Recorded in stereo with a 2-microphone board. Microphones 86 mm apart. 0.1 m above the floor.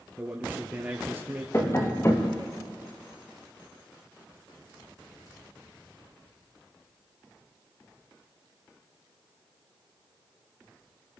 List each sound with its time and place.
0.2 s a man speaking: 15° right (ahead or behind), 2.5 m
1.5 s tapping: 30° left (ahead or behind), 3 m